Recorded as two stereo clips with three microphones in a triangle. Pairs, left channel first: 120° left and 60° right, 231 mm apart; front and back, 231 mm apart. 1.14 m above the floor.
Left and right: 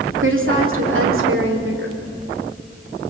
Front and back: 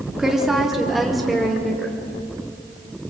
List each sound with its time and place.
0.2 s a woman speaking: 90° right, 2.5 m